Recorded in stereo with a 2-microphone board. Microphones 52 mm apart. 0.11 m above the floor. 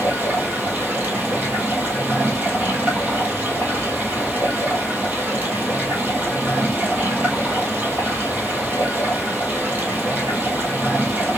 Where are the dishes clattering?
I don't hear dishes clattering.